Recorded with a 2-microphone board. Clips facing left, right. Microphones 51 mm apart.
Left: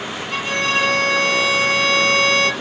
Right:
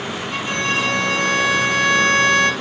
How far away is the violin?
About 2.5 m.